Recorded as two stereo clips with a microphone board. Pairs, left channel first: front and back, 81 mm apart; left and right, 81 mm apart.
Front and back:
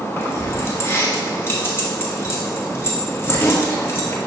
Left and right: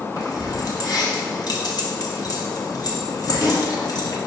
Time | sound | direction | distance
0.2 | keys jangling | 60° left | 1.3 m